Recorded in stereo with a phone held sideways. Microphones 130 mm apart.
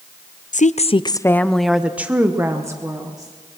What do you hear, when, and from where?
0.5 s a woman speaking: 75° left (ahead or behind), 0.6 m; by 3.3 s 30° right (ahead or behind), 1.8 m